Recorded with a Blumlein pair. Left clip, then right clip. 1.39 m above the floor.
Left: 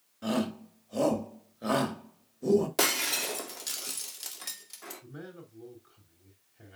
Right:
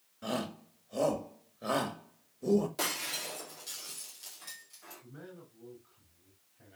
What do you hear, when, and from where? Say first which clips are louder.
0.2 s a shout: left 4 dB; 10° left, 2.5 m
2.8 s breaking glass: left 7 dB; 60° left, 2.0 m
5.0 s a man speaking: left 4 dB; 25° left, 4 m